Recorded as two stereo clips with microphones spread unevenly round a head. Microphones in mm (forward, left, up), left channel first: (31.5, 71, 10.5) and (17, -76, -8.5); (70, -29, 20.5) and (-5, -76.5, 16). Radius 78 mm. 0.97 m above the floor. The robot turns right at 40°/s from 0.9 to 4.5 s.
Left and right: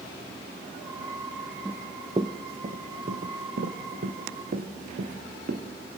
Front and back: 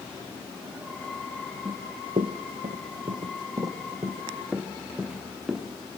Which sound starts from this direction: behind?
Running footsteps, at 1.6 s.